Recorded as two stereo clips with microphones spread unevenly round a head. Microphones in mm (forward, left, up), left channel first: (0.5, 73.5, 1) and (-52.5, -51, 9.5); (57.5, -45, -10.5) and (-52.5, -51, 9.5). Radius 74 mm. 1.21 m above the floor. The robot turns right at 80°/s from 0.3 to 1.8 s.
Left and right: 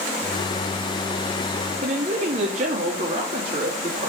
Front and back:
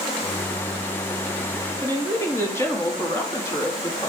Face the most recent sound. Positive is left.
turn(degrees=-60)